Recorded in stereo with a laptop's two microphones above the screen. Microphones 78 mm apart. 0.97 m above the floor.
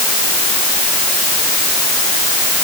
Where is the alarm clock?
No alarm clock in this recording.